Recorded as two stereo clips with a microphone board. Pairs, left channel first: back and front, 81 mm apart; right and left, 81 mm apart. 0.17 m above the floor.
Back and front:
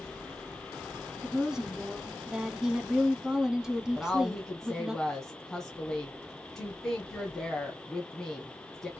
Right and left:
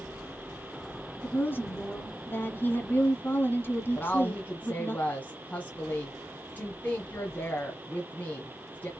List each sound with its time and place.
1.2 s a woman speaking: 75° right, 1.2 m
4.0 s a woman speaking: 105° right, 1.5 m